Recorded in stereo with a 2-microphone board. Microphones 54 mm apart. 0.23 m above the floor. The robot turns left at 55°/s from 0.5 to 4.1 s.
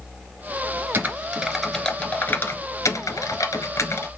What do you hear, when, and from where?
0.9 s typing on a keyboard: 40° right (ahead or behind), 1.2 m; by 4.1 s 45° left (ahead or behind), 1.2 m